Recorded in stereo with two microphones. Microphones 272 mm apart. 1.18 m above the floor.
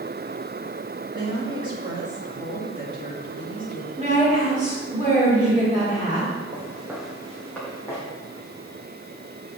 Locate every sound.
1.1 s a woman speaking: 15° right (ahead or behind), 2.5 m
4.0 s a woman speaking: 25° right (ahead or behind), 3.5 m
6.5 s footsteps: 10° right (ahead or behind), 3.5 m; by 8.0 s 10° left (ahead or behind), 4 m